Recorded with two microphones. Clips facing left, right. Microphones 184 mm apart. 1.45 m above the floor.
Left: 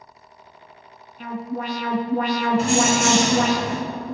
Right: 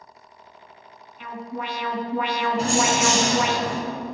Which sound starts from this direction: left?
An alarm, at 1.2 s.